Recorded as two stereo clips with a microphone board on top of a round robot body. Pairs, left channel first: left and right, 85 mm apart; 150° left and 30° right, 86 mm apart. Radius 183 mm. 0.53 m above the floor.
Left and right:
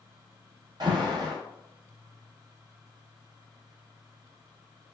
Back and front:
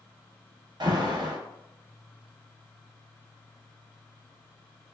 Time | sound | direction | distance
0.8 | an alarm | 60° right | 1.3 m